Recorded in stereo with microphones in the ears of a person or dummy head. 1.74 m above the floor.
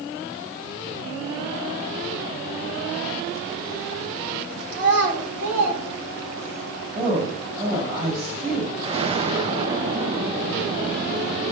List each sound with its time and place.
4.7 s a child speaking: 70° right (ahead or behind), 3.5 m; by 6.6 s 65° right (ahead or behind), 4.5 m
7.0 s a woman speaking: 25° right (ahead or behind), 3 m
8.8 s an explosion: 35° right (ahead or behind), 0.6 m